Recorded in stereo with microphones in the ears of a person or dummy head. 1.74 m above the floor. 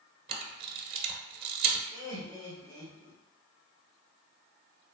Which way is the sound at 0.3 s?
30° right (ahead or behind).